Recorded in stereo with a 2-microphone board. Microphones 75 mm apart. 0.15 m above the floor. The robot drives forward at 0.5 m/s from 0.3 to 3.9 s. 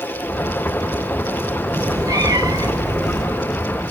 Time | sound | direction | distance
1.8 | a cat meowing | 50° right (ahead or behind) | 1.5 m